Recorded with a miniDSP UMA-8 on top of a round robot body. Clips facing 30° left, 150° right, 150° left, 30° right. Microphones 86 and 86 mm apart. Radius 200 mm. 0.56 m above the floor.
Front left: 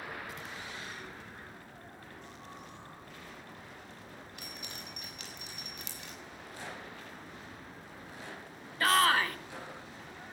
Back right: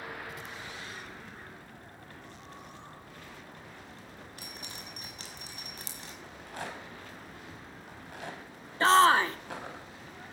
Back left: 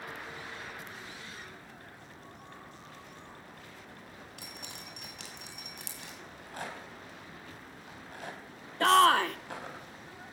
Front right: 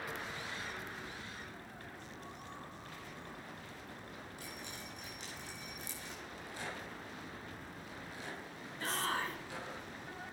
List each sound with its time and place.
4.4 s dripping: 155° left, 6.5 m
6.2 s a rattle: 175° right, 5 m
8.8 s a shout: 150° left, 1.6 m